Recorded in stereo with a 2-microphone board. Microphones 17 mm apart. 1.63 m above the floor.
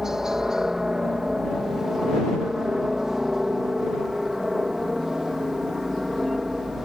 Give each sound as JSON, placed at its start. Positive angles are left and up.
{"t": 0.0, "sound": "a helicopter", "side_deg": -30}